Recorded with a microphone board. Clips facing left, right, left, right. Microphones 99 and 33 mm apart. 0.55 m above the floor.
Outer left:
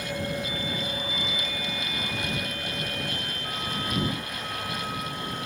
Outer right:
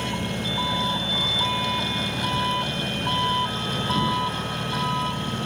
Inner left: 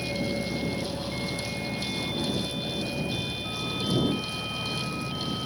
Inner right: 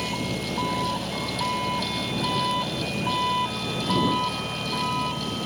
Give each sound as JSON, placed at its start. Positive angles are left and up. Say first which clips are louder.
{"t": 0.0, "sound": "an engine running", "louder": "outer right 3 dB, inner right 1 dB", "side_deg": -75}